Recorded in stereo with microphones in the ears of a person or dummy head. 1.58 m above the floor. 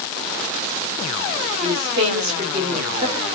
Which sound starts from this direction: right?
A woman speaking, at 1.6 s.